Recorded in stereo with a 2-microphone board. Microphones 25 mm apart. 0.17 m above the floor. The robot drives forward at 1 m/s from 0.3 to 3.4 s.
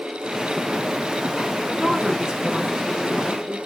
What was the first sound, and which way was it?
A woman speaking, 35° right (ahead or behind).